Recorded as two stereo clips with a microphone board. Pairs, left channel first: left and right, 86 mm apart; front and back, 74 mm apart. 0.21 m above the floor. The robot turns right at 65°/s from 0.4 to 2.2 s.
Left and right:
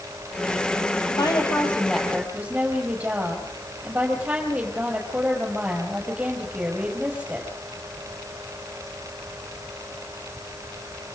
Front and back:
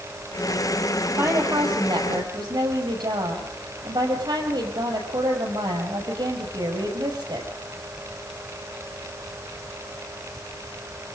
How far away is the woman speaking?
About 6 m.